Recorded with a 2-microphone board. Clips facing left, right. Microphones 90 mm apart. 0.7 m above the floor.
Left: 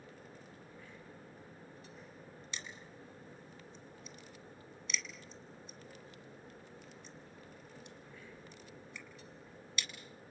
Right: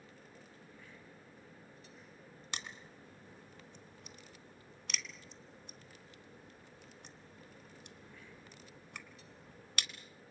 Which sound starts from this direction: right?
Crushing, at 2.5 s.